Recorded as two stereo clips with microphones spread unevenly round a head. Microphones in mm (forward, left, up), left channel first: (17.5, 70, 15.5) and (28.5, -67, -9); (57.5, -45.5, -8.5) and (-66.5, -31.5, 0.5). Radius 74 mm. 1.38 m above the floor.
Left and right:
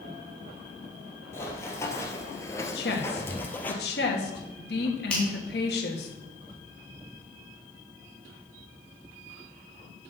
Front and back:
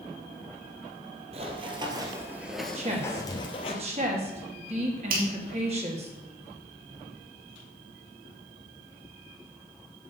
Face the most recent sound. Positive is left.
turn(degrees=180)